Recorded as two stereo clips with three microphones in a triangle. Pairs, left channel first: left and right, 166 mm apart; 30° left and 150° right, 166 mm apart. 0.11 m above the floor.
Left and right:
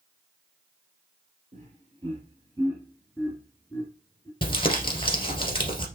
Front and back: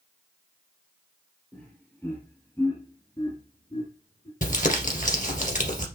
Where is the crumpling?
40° left, 2 m.